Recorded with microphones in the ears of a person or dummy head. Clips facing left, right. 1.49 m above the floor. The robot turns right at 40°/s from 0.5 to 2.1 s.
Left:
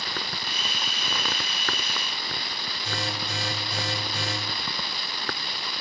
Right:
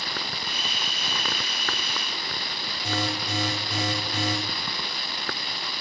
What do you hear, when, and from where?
2.8 s an alarm: 55° right (ahead or behind), 8 m